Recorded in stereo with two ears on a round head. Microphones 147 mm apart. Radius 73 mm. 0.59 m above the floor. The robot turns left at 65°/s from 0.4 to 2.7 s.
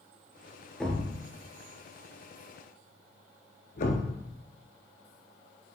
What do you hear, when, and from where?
0.8 s a thud: centre (ahead or behind), 1.4 m; by 4.2 s 50° left (ahead or behind), 1.4 m